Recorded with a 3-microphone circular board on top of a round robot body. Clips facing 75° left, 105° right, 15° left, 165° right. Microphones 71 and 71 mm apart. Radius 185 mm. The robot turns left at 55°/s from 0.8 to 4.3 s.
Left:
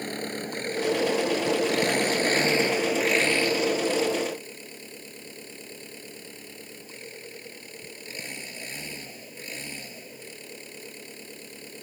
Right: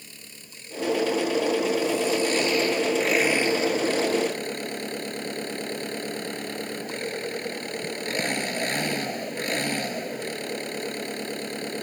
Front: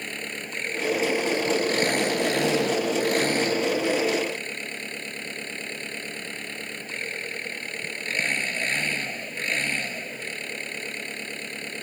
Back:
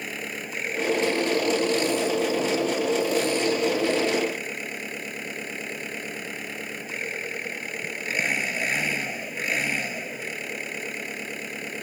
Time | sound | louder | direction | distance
0.0 | an engine running | left 17 dB, back 1 dB | 110° left | ?